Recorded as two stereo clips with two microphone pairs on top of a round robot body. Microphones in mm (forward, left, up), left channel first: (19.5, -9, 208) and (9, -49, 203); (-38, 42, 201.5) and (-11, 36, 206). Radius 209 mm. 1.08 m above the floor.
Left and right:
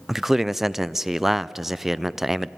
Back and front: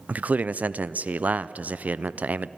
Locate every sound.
0.1 s a man speaking: 30° right, 0.5 m